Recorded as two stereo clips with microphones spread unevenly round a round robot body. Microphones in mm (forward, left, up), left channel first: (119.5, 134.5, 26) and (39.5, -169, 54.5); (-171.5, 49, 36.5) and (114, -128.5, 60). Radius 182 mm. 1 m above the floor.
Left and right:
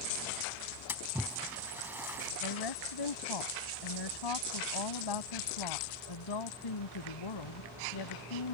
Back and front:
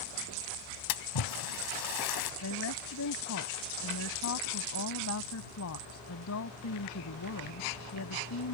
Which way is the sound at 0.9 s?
170° left.